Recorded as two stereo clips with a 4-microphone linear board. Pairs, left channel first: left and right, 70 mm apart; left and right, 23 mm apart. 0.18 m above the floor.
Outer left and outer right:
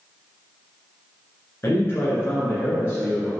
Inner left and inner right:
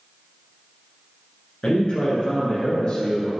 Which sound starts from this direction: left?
A man speaking, at 1.6 s.